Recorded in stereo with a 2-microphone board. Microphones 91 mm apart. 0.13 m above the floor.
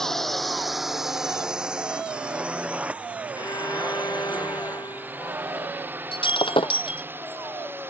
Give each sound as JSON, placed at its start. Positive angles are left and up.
{"t": 0.0, "sound": "a drone", "side_deg": 5}
{"t": 3.4, "sound": "a violin", "side_deg": 45}
{"t": 6.1, "sound": "breaking glass", "side_deg": 70}